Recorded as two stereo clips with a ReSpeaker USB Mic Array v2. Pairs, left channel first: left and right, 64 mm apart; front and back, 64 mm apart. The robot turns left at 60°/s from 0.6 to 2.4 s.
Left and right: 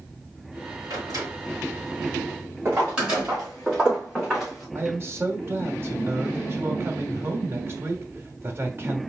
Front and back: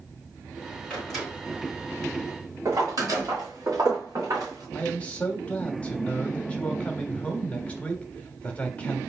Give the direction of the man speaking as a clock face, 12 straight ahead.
2 o'clock.